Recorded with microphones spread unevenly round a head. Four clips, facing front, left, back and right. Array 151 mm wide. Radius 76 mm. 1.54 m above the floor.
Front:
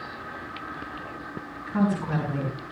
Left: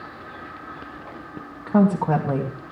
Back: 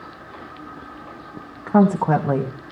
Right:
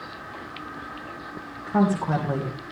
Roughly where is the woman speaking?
Behind.